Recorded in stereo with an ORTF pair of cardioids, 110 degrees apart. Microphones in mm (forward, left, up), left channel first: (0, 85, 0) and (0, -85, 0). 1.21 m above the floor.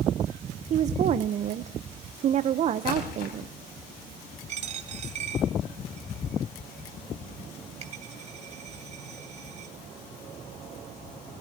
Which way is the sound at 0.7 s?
45° right.